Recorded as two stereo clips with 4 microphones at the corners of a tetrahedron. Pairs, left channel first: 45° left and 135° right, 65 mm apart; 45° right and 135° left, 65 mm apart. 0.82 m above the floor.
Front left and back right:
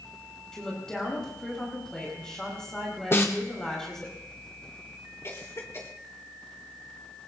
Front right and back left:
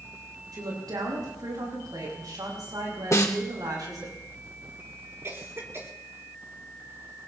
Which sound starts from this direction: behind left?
A woman speaking, at 0.5 s.